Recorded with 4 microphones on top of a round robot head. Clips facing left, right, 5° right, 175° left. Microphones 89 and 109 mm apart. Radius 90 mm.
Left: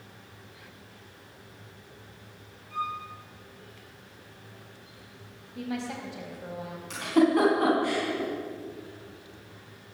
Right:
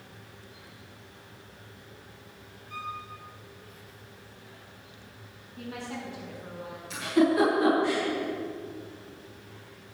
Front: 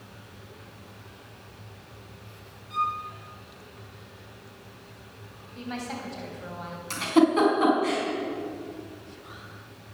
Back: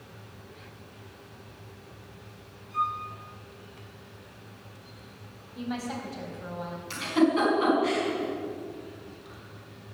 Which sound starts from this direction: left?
A woman speaking, at 5.5 s.